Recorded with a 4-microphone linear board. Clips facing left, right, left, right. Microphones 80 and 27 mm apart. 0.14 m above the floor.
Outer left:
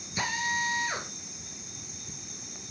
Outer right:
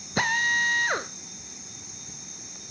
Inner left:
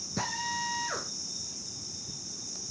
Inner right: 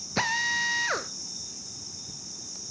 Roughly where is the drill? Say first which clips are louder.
Outer right 6 dB, inner right 7 dB; right.